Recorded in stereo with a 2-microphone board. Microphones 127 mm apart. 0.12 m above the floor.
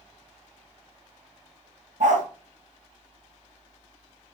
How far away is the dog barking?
About 1.8 m.